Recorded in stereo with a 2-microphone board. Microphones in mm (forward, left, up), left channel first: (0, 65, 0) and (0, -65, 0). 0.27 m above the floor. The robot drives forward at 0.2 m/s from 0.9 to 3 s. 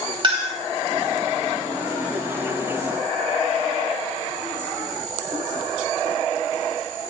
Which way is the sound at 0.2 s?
40° right (ahead or behind).